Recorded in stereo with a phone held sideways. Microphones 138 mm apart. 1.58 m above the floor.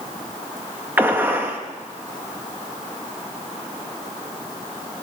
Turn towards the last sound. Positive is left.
turn(degrees=-15)  # may be behind; listen again after turning